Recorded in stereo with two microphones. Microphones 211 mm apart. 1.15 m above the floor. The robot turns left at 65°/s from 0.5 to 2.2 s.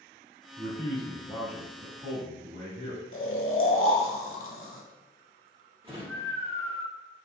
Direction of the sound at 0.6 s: 55° left.